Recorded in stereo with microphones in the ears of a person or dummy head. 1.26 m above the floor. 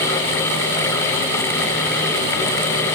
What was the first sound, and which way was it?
Only background noise.